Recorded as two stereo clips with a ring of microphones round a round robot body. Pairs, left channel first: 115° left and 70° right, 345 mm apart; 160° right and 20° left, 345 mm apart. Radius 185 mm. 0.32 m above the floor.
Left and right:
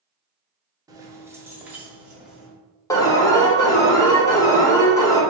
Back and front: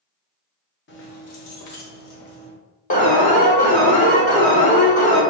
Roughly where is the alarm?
Behind.